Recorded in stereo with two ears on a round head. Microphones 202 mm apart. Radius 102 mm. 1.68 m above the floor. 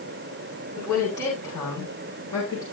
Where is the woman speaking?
15° left (ahead or behind), 7 m.